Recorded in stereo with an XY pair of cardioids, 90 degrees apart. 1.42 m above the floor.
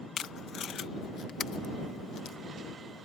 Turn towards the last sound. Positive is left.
turn(degrees=65)